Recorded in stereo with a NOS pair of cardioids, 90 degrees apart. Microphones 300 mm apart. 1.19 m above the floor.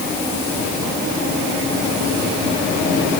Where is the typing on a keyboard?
I don't hear typing on a keyboard.